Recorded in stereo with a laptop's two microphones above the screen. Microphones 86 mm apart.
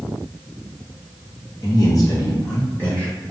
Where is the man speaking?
50° left (ahead or behind), 1.2 m; by 3.1 s 15° left (ahead or behind), 2 m.